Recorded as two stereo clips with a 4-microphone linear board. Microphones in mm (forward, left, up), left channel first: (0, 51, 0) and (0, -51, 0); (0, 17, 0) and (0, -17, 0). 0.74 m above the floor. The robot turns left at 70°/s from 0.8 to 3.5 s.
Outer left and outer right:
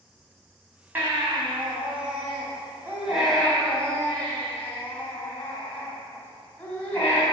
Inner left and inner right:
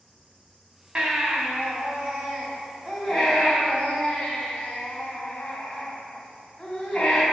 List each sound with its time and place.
0.9 s a baby crying: 20° right, 3 m; by 7.2 s 160° left, 3 m